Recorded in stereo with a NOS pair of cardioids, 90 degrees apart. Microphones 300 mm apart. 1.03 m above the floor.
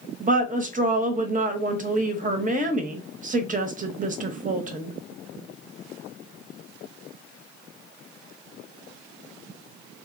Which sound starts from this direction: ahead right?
A woman speaking, at 0.2 s.